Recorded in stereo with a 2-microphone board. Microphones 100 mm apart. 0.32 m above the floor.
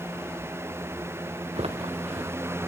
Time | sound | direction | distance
1.6 | footsteps | 80° right | 2 m